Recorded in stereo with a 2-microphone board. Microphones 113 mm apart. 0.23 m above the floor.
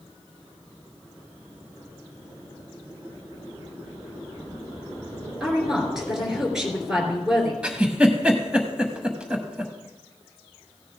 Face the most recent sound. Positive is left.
turn(degrees=-10)  # may be behind; listen again after turning